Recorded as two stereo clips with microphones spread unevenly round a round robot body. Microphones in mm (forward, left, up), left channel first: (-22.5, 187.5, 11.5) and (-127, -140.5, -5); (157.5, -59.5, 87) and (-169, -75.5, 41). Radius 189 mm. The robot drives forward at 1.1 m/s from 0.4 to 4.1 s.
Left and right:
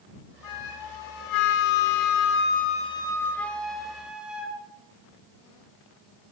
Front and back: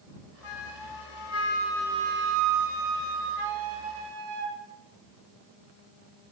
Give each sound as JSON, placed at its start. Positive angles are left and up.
{"t": 0.4, "sound": "a flute", "azimuth_deg": 25, "distance_m": 1.6}